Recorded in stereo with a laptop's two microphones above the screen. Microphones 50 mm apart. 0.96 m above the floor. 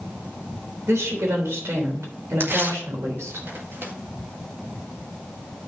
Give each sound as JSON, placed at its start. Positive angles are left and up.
{"t": 0.9, "sound": "a woman speaking", "side_deg": -85, "distance_m": 3.0}
{"t": 2.4, "sound": "tearing paper", "side_deg": -55, "distance_m": 1.7}